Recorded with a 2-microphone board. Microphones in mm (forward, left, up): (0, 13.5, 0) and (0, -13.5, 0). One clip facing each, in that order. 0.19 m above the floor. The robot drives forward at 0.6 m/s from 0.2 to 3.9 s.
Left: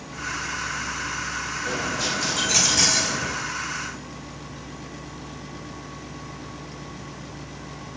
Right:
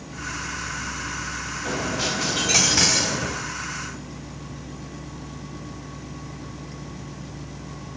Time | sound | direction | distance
1.6 | a dropped coin | 55° right (ahead or behind) | 4 m